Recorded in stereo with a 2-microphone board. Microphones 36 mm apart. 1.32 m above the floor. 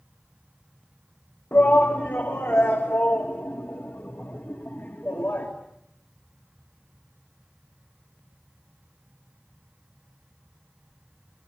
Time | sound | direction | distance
1.5 | a shout | 70° left (ahead or behind) | 3 m